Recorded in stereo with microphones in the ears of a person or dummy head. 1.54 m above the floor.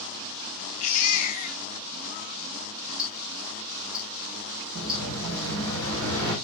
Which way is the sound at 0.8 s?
45° left (ahead or behind).